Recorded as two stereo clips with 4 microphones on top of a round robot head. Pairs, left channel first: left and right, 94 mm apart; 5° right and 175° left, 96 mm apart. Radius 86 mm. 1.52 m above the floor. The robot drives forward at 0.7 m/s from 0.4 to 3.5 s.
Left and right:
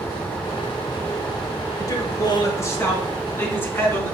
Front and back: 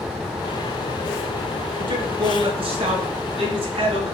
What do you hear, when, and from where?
1.8 s a man speaking: 140° left, 2 m; by 4.1 s 155° left, 3 m